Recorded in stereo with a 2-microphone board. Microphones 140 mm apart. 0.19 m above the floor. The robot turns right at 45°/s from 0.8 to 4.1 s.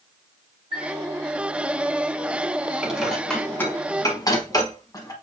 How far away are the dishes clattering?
About 1.1 m.